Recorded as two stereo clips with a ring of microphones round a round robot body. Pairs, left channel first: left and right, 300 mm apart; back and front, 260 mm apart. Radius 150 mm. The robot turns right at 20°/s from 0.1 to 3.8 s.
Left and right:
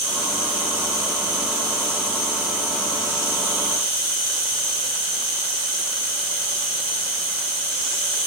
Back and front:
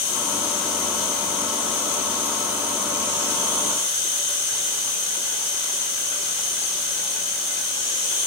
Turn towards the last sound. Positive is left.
turn(degrees=-40)